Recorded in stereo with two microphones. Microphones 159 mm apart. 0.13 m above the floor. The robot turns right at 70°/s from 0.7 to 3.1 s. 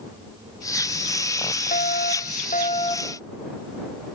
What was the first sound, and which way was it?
A fire alarm, 65° left.